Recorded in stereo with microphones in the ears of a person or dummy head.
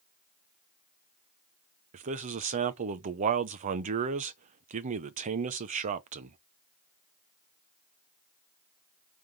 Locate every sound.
1.9 s a man speaking: 40° right (ahead or behind), 0.7 m